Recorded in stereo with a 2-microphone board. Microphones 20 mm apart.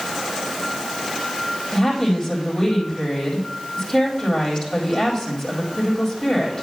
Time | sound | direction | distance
1.7 | a woman speaking | 15° left (ahead or behind) | 3 m